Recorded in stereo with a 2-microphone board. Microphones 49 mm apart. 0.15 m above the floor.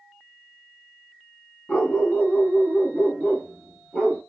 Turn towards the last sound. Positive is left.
turn(degrees=20)  # may be behind; listen again after turning